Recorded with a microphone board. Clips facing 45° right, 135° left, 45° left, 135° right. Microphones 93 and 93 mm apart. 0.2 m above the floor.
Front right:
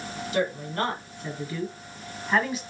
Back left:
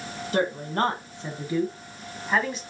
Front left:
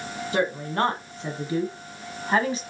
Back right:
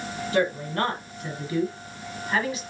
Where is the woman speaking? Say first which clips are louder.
Back left 2 dB, even; 105° left, 1.6 m; by 2.6 s 35° left, 1.3 m.